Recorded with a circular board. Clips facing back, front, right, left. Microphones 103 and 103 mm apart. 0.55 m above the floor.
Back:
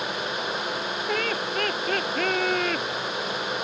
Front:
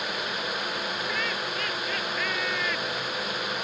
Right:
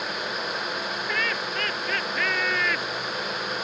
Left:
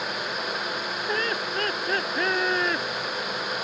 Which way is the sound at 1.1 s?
150° left.